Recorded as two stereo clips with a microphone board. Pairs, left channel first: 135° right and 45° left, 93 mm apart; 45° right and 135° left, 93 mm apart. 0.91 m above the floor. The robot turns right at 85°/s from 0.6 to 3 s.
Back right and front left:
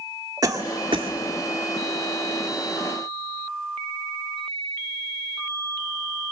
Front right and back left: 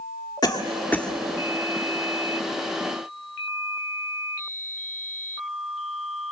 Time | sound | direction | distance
0.4 | a cough | 5° right | 2.0 m